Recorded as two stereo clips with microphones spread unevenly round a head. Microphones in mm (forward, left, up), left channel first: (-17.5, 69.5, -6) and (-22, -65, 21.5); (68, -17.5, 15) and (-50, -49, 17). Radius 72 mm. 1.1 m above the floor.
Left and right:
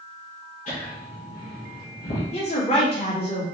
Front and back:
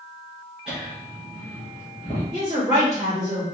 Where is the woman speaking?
130° left, 1.7 m.